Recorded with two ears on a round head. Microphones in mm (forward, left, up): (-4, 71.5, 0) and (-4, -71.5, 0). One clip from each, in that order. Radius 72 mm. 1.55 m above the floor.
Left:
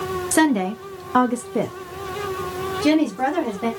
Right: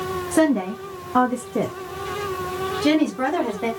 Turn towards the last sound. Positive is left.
turn(degrees=-15)  # may be behind; listen again after turning